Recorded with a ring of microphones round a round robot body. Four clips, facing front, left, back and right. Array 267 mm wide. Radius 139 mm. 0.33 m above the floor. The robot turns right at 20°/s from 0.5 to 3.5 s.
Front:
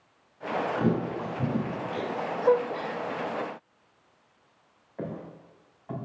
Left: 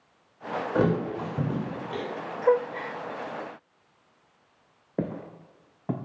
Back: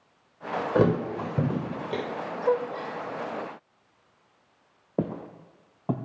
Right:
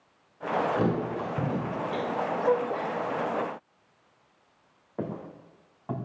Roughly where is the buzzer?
I don't hear a buzzer.